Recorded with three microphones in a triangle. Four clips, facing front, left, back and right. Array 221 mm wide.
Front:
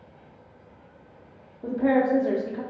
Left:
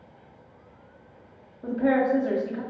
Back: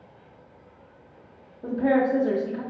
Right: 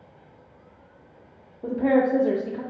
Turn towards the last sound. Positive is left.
turn(degrees=-70)